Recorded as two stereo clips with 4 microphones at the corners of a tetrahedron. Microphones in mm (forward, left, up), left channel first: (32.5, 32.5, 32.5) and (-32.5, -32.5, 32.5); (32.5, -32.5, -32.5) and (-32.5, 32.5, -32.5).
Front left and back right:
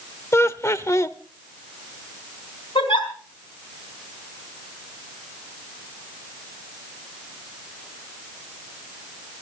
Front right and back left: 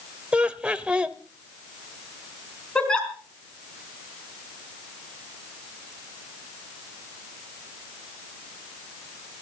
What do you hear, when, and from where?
0.3 s laughter: 70° left, 0.9 m
2.8 s a giggle: 35° left, 4.5 m